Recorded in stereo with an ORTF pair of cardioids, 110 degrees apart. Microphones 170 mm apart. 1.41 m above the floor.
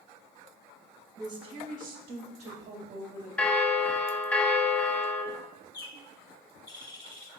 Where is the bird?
25° left, 0.9 m.